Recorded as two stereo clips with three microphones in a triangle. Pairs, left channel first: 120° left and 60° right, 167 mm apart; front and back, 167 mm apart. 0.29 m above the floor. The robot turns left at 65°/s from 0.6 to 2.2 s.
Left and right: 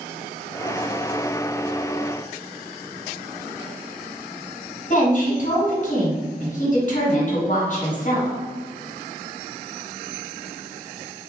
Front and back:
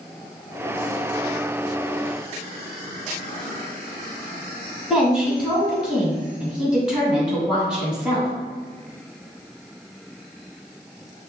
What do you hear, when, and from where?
4.9 s a woman speaking: 90° left, 1.9 m